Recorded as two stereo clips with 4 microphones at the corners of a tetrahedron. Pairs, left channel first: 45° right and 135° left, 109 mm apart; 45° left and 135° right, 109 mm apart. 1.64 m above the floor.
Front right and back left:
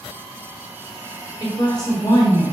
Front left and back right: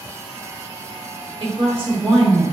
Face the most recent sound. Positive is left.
turn(degrees=-100)